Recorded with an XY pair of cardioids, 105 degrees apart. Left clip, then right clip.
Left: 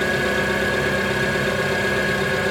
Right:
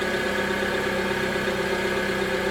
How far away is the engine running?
About 0.9 m.